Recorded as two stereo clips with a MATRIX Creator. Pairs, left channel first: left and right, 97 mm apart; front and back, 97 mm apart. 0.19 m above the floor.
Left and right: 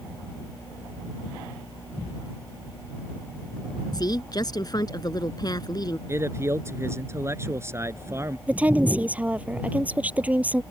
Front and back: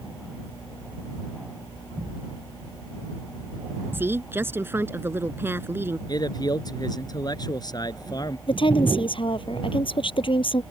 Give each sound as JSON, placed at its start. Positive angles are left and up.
{"t": 3.9, "sound": "a woman speaking", "azimuth_deg": 120}
{"t": 6.1, "sound": "a man speaking", "azimuth_deg": -35}
{"t": 8.5, "sound": "a woman speaking", "azimuth_deg": -15}